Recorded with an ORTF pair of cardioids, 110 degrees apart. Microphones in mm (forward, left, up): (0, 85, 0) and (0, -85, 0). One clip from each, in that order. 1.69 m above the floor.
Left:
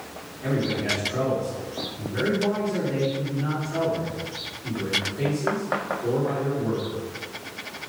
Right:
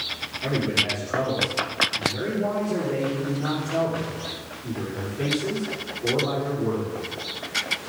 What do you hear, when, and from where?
0.4 s a man speaking: 10° right, 5 m